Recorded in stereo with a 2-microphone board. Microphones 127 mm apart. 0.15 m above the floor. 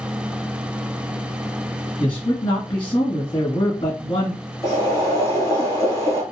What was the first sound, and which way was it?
A man speaking, 30° left (ahead or behind).